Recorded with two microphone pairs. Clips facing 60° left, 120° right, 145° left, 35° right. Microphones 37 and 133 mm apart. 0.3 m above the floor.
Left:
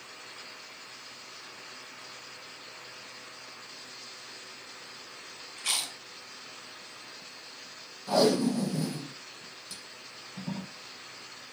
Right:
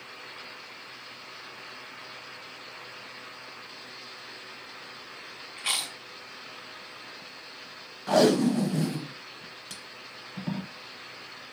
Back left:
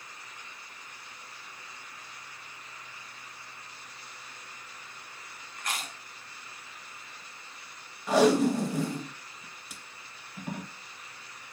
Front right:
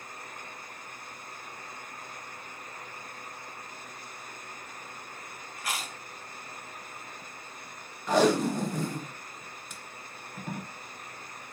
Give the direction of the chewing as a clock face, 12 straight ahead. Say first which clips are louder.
Right 2 dB, front right 1 dB; 4 o'clock.